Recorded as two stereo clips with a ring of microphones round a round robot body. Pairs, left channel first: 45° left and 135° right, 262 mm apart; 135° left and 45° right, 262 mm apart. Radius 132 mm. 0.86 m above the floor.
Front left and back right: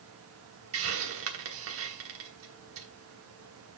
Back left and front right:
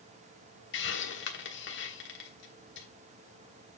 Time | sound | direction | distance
0.7 | a hiss | 175° right | 1.2 m